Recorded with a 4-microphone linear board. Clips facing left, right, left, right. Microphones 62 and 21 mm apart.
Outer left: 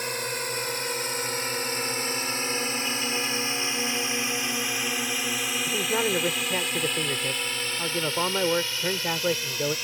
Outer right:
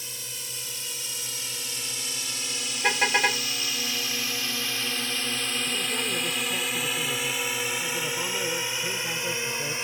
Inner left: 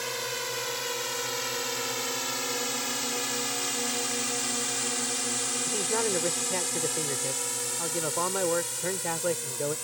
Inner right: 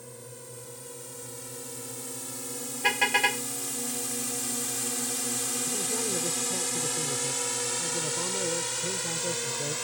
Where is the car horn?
70° right (ahead or behind).